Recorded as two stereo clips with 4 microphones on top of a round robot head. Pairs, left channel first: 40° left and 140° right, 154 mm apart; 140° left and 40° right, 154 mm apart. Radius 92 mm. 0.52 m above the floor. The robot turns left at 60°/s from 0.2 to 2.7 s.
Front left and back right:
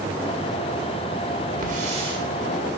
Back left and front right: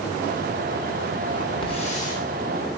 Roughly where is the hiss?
Behind.